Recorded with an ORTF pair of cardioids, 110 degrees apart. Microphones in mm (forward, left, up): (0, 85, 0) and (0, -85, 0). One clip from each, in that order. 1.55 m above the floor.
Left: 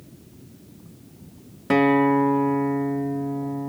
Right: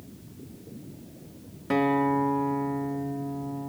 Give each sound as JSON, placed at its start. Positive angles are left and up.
{"t": 1.7, "sound": "a guitar", "azimuth_deg": 30, "distance_m": 0.6}